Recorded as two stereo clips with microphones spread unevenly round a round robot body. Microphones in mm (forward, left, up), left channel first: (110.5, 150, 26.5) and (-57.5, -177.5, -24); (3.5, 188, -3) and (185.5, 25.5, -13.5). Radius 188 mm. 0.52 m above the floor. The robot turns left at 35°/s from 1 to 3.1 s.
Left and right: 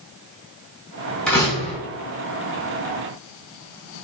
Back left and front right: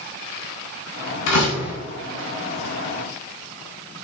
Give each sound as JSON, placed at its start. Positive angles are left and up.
{"t": 1.3, "sound": "a door slam", "azimuth_deg": 150, "distance_m": 3.5}